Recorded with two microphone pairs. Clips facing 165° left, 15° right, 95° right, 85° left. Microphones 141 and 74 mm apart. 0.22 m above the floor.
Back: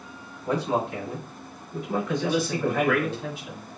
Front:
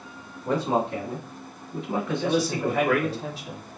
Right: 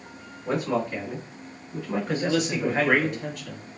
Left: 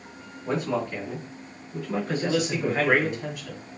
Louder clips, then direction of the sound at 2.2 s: Front 1 dB, right 1 dB; straight ahead.